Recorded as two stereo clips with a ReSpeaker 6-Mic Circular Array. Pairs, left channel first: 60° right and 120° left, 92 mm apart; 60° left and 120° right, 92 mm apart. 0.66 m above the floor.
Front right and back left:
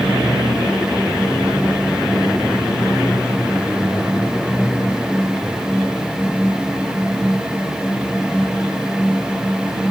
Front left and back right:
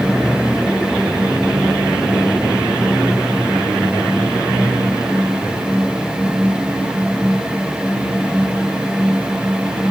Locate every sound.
Only background noise.